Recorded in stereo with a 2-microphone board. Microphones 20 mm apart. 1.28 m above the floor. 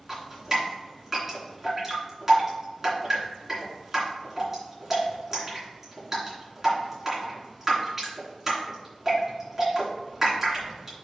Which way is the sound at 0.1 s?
20° right (ahead or behind).